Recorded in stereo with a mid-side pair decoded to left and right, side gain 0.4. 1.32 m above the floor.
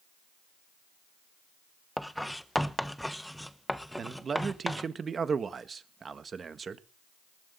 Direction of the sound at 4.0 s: 45° right.